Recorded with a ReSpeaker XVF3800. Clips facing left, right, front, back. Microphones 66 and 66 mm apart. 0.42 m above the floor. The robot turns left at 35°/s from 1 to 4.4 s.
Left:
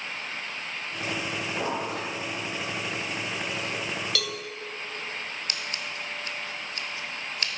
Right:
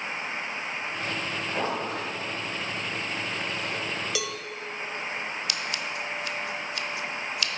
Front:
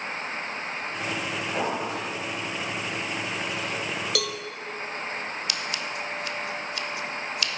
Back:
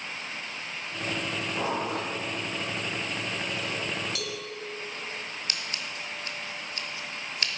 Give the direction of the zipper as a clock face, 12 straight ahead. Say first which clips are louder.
Right 1 dB, front 1 dB; 1 o'clock.